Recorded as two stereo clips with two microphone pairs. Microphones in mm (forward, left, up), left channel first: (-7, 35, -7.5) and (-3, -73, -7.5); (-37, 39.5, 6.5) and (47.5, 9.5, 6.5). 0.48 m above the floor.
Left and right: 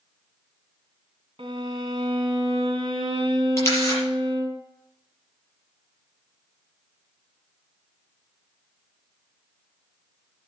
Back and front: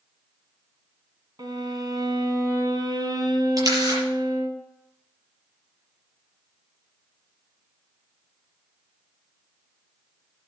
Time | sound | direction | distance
1.4 | a violin | 55° right | 2 m
3.6 | a camera shutter | 25° left | 7.5 m